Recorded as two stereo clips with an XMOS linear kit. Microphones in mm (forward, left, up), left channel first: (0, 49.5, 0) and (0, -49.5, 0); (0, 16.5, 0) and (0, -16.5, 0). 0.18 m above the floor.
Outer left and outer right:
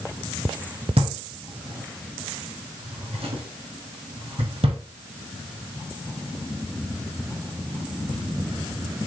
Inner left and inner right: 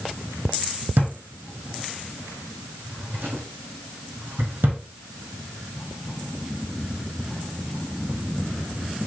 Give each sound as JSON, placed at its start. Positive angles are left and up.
{"t": 1.0, "sound": "a drawer", "side_deg": -75, "distance_m": 4.5}